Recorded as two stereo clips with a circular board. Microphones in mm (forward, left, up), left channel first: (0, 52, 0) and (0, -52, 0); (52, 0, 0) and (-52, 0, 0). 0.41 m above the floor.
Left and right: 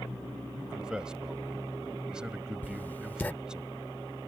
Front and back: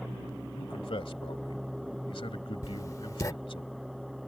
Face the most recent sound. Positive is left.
turn(degrees=30)